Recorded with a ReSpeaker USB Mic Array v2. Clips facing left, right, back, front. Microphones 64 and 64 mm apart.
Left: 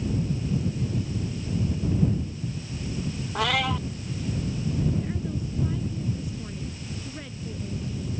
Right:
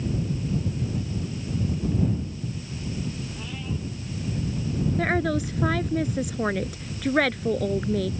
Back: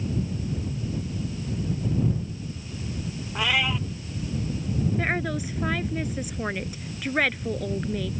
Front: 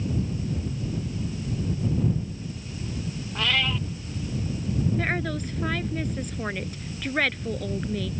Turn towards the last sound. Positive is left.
turn(degrees=-95)